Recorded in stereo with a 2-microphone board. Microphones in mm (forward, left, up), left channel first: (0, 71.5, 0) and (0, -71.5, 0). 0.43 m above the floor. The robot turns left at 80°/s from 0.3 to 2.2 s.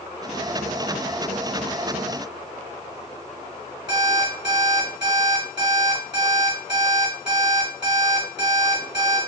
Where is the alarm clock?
30° right (ahead or behind), 2.0 m.